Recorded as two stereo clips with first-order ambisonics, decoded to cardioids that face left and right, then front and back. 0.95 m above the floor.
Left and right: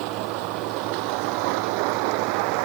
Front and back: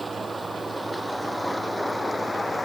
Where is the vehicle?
100° right; by 2.6 s 85° right.